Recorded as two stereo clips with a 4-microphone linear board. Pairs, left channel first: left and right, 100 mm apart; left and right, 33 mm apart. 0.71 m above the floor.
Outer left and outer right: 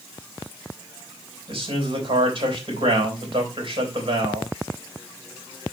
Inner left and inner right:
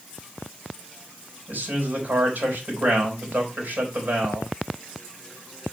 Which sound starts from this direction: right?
A man speaking, at 1.5 s.